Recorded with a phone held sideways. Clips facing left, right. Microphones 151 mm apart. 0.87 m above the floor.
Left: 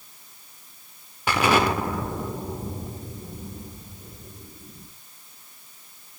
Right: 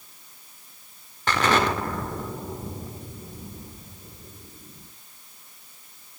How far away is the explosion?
About 1.7 m.